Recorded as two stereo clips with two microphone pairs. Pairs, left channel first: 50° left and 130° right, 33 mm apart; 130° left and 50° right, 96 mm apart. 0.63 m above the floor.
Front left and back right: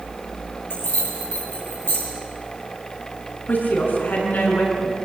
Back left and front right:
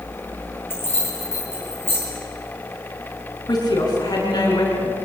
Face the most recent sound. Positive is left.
turn(degrees=80)